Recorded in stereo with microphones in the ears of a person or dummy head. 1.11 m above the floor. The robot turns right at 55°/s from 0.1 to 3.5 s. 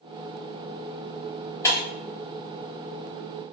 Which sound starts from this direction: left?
Breaking glass, at 1.6 s.